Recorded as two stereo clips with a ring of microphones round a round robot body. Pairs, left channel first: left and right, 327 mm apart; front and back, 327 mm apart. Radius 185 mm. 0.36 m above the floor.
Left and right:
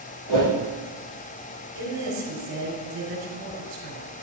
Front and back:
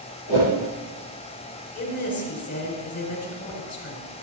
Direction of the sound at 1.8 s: 45° right.